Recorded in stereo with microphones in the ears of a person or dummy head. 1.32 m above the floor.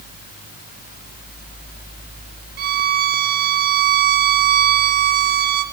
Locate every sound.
2.6 s a violin: 50° right (ahead or behind), 1.0 m